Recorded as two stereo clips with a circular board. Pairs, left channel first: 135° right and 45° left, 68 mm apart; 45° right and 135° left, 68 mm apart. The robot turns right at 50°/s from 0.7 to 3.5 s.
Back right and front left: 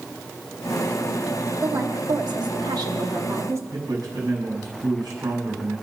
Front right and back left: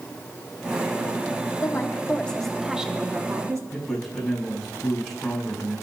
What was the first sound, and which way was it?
A woman speaking, 5° right.